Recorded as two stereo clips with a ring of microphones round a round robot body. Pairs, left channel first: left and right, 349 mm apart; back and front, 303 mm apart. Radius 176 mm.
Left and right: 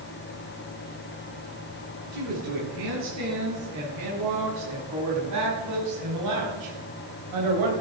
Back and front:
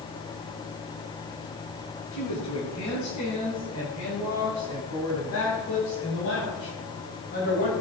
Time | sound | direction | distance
2.1 | a woman speaking | 135° right | 7.5 m